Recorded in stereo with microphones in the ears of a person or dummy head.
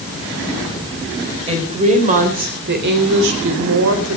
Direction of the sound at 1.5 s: 25° right (ahead or behind).